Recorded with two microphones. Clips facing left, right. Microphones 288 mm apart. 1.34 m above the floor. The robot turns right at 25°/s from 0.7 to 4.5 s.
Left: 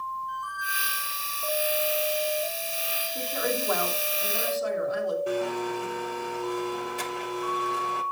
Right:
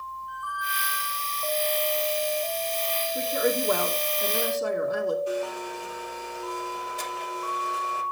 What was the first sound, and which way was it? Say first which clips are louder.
A squeak: right 1 dB; 35° left (ahead or behind).